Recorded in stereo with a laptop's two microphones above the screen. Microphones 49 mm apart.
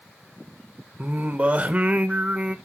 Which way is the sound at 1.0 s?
25° right (ahead or behind).